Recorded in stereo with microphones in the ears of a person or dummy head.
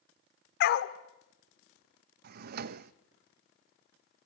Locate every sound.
0.6 s a dog barking: 55° left (ahead or behind), 1.3 m
2.2 s a drawer: 55° right (ahead or behind), 0.7 m